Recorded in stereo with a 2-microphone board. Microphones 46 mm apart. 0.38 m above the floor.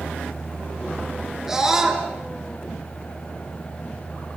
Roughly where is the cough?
No cough in this recording.